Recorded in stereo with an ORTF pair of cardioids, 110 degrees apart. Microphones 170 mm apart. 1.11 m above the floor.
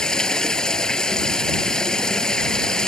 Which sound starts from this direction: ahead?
Running water, at 0.0 s.